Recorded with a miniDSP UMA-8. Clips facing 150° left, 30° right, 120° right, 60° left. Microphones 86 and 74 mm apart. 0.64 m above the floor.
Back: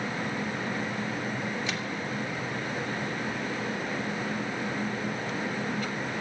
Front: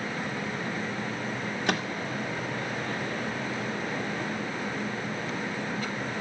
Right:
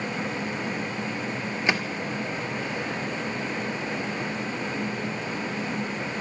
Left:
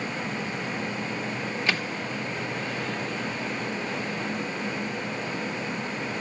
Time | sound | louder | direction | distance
1.7 | a microwave | front 3 dB, right 4 dB | 50° right | 1.6 m